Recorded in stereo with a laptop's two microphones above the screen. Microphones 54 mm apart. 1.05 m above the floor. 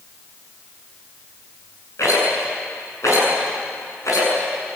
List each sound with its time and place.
2.0 s a rattle: 70° left (ahead or behind), 8.5 m